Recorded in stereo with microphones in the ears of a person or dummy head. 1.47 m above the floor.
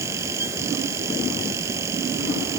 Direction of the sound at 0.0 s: 20° right (ahead or behind).